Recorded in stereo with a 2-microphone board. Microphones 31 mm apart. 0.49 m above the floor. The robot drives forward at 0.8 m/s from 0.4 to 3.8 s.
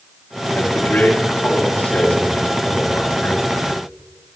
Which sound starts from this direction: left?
A man speaking, at 0.5 s.